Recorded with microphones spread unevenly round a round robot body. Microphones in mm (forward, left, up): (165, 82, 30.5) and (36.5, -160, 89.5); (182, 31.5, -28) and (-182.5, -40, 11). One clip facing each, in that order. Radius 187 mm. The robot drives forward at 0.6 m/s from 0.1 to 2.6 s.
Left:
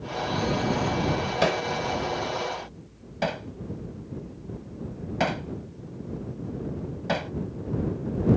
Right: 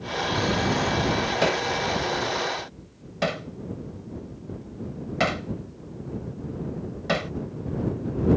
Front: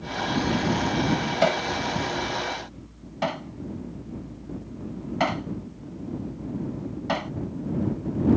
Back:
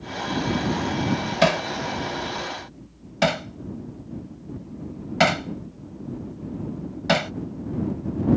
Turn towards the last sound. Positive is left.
turn(degrees=160)